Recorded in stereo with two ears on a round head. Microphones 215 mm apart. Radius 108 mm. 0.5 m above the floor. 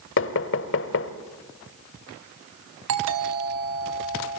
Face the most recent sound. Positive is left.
turn(degrees=-70)  # may be behind; listen again after turning